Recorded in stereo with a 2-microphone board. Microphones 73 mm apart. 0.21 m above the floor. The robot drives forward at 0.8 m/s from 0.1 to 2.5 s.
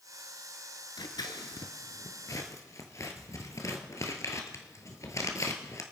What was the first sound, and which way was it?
Scissors, 70° left (ahead or behind).